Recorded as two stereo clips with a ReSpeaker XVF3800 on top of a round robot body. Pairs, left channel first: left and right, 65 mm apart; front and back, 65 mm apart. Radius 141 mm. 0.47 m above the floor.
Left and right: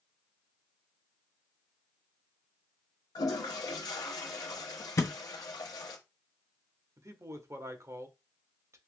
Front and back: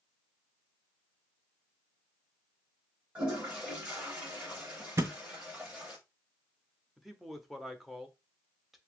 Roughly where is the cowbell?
I don't hear a cowbell.